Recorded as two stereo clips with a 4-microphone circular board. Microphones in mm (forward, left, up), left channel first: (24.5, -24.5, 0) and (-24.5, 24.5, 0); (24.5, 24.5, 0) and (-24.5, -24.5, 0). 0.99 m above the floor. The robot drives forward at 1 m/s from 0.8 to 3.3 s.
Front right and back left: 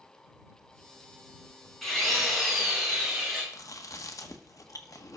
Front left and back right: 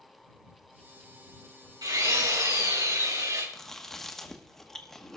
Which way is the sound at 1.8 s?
130° right.